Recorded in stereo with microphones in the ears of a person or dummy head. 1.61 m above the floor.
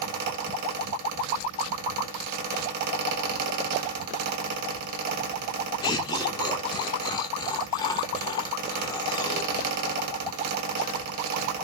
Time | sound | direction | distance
0.0 | a fan | 50° right (ahead or behind) | 1.6 m
5.8 | laughter | 25° left (ahead or behind) | 0.5 m